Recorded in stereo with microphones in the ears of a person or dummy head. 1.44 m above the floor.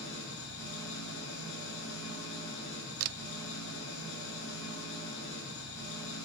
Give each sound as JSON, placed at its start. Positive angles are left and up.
{"t": 0.0, "sound": "an engine running", "side_deg": 75, "distance_m": 9.0}
{"t": 3.0, "sound": "a camera shutter", "side_deg": -65, "distance_m": 0.6}